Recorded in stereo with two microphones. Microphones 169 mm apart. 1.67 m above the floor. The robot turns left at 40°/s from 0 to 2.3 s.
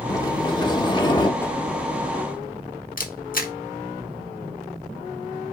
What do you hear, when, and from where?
0.1 s a sliding door: 20° left (ahead or behind), 1.3 m; by 1.3 s 25° left (ahead or behind), 1.3 m
1.4 s a whoosh: 10° left (ahead or behind), 1.2 m; by 1.6 s 20° left (ahead or behind), 1.2 m
3.0 s a camera shutter: 55° left (ahead or behind), 1.3 m